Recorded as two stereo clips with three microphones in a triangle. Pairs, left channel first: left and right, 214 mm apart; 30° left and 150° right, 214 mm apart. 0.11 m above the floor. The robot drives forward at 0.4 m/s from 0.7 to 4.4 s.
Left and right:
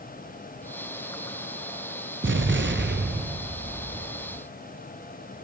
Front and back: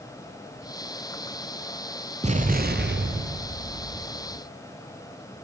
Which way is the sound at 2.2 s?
90° right.